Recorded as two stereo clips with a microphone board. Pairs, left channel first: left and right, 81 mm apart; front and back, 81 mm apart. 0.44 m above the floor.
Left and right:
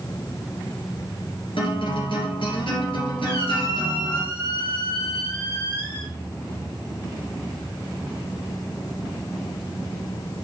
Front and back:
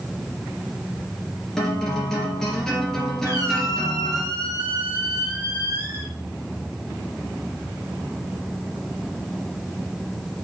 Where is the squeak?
125° left, 2 m.